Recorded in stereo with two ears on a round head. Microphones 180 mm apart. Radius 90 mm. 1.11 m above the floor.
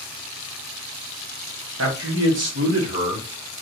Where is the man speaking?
75° right (ahead or behind), 1.3 m; by 3.3 s 50° right (ahead or behind), 1.9 m.